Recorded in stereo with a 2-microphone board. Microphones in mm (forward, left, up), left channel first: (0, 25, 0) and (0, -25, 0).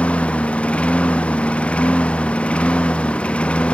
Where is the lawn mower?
20° left (ahead or behind).